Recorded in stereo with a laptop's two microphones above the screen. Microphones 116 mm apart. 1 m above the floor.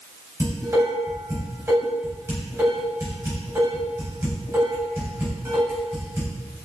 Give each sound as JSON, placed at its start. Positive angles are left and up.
{"t": 0.4, "sound": "dishes clattering", "side_deg": -25, "distance_m": 4.0}